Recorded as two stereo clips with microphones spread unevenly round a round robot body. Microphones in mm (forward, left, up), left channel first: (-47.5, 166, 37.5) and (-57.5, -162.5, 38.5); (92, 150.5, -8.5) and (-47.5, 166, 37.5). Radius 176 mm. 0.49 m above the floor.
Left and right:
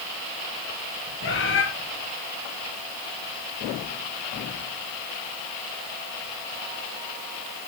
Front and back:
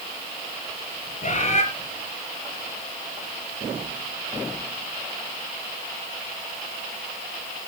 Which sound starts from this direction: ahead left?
A bird, at 1.2 s.